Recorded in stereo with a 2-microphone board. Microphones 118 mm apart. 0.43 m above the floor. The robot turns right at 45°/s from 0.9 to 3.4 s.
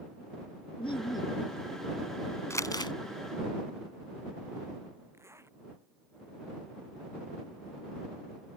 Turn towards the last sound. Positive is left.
turn(degrees=-20)  # may be behind; listen again after turning